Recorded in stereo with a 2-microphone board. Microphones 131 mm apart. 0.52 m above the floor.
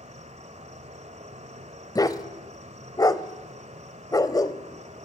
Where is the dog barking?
30° left (ahead or behind), 0.9 m.